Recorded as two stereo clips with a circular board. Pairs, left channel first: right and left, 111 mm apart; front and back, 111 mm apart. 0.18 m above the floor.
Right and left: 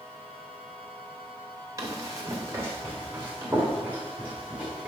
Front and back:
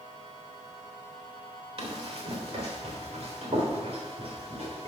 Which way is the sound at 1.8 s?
150° left.